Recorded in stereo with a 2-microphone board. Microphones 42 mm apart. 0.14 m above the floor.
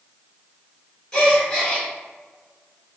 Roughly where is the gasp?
Centre.